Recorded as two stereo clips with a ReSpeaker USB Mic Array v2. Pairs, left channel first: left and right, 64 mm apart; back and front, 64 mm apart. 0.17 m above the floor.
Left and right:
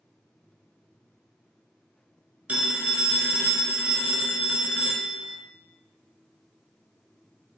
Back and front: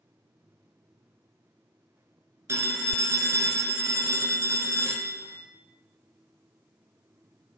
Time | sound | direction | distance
2.5 | a phone ringing | 25° right | 1.8 m